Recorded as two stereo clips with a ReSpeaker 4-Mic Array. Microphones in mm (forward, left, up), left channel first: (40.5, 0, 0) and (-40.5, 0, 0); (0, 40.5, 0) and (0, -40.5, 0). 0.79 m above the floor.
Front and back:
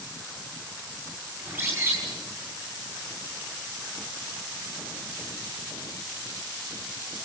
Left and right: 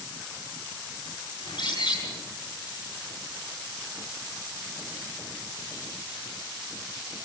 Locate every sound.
1.4 s a bird: 115° left, 9.5 m